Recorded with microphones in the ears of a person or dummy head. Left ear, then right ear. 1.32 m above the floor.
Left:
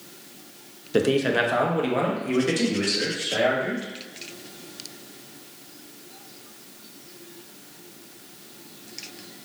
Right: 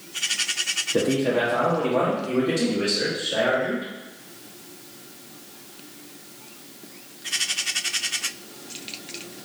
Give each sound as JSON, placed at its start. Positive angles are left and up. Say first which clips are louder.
{"t": 0.9, "sound": "a man speaking", "louder": "left 3 dB", "side_deg": 30, "distance_m": 0.5}